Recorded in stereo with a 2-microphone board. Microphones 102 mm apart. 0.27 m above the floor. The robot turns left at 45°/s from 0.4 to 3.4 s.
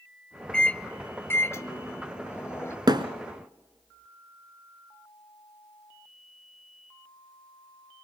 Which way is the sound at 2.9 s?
45° right (ahead or behind).